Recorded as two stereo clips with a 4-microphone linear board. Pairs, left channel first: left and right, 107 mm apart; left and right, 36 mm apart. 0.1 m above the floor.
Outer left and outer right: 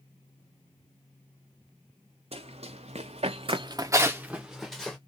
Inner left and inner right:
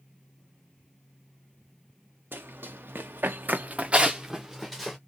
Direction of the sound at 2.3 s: 70° right (ahead or behind).